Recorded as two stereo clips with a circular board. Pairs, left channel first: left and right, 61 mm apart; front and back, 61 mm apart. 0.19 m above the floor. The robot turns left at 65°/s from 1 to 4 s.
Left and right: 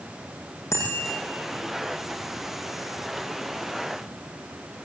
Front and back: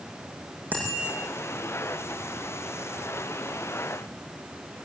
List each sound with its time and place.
0.7 s a bicycle bell: 125° left, 8.5 m; by 1.1 s 115° left, 8.5 m